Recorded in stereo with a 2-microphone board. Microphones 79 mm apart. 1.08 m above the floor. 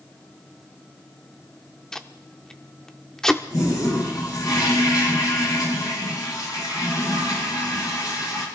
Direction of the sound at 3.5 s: 60° left (ahead or behind).